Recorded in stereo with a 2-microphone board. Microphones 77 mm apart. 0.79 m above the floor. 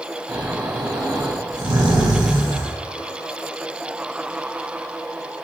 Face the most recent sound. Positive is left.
turn(degrees=-70)  # may be behind; listen again after turning